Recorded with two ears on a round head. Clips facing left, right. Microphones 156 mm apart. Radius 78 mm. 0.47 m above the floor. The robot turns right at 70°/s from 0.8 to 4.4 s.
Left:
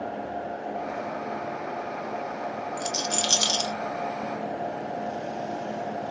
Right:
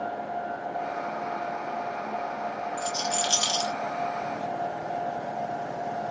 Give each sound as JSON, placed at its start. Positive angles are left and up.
{"t": 2.8, "sound": "a rattle", "side_deg": 50, "distance_m": 1.0}